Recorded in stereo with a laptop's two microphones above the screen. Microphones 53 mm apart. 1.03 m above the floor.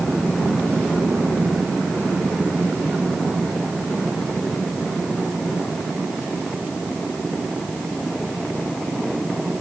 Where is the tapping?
No tapping in this recording.